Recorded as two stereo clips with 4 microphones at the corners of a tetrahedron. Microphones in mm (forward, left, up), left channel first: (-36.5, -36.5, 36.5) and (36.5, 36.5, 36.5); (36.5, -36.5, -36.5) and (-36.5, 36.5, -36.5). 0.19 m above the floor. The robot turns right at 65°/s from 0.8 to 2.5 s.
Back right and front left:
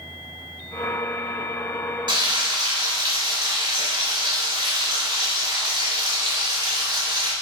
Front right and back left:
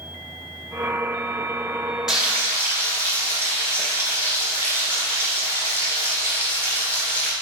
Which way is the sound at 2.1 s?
50° left.